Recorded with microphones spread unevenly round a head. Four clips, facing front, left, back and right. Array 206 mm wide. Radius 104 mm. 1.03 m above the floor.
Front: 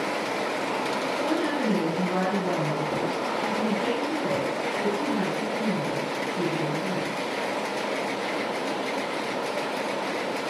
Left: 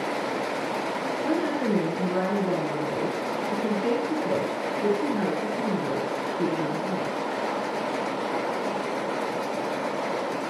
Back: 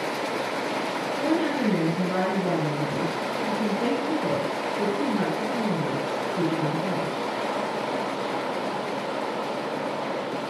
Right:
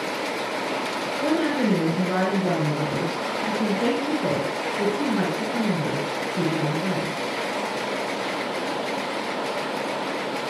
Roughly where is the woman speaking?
Right.